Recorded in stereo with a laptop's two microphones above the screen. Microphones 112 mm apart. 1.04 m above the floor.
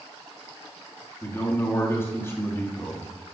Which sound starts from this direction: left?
A man speaking, at 1.2 s.